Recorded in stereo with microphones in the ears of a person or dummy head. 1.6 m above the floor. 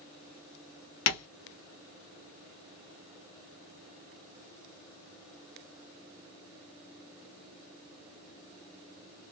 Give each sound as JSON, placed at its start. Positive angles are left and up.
{"t": 1.1, "sound": "tapping", "side_deg": 85, "distance_m": 0.9}